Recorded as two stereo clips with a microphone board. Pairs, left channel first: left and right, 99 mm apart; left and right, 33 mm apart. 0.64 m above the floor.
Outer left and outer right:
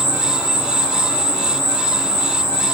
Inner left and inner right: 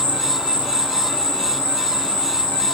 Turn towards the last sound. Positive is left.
turn(degrees=30)  # may be behind; listen again after turning